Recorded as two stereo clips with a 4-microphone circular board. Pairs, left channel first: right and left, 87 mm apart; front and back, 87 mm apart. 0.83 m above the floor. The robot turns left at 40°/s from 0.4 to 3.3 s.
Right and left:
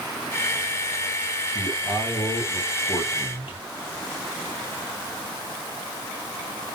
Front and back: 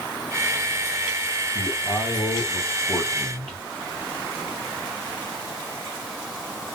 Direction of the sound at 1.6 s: 15° right.